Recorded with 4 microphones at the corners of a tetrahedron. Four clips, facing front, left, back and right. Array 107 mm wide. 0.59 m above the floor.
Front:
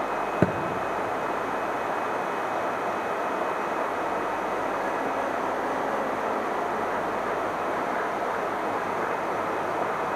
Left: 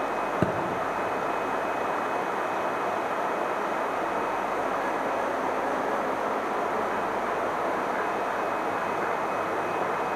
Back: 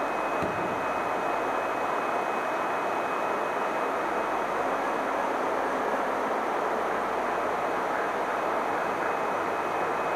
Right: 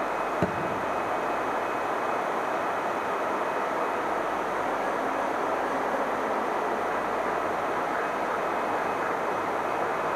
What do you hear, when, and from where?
0.4 s a thud: 10° left, 1.4 m